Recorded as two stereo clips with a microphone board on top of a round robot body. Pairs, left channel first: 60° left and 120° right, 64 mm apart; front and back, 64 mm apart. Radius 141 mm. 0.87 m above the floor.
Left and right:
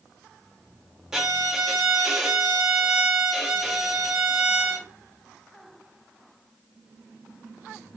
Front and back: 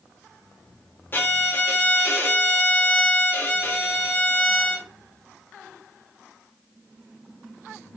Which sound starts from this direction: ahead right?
A violin, at 1.1 s.